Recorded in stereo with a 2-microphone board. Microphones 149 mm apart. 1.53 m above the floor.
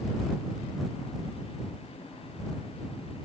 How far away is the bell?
I don't hear a bell.